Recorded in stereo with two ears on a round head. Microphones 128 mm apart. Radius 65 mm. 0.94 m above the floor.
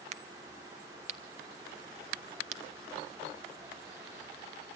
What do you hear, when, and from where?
0.1 s a crack: 45° right (ahead or behind), 1.2 m